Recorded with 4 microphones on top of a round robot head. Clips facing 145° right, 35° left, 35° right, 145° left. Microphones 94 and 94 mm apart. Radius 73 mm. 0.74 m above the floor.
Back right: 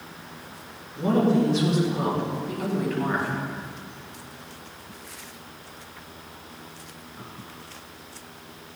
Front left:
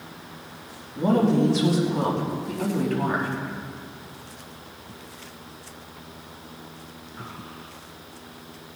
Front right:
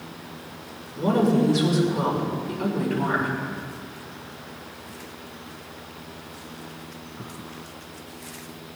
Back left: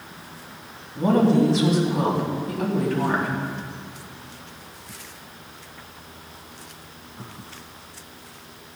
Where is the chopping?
No chopping in this recording.